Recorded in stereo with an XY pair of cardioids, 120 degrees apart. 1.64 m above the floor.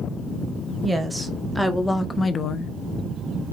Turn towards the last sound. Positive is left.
turn(degrees=65)